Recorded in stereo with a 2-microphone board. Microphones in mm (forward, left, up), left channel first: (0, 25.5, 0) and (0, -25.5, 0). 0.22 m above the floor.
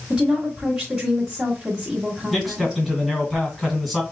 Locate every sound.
0.1 s a woman speaking: 10° right (ahead or behind), 1.3 m
2.3 s a man speaking: 10° left (ahead or behind), 2.0 m